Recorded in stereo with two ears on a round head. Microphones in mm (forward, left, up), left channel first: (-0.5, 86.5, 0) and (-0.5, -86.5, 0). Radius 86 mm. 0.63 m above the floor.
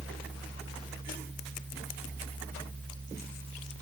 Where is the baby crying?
I don't hear a baby crying.